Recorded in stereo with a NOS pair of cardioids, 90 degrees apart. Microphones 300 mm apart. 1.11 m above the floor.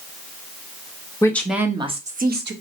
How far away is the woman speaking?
About 0.9 m.